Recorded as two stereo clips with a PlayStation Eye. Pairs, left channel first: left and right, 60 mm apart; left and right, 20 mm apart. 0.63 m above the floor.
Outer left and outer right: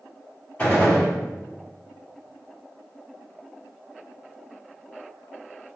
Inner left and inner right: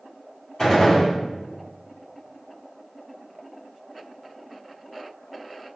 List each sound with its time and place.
0.6 s a gunshot: 20° left (ahead or behind), 2.0 m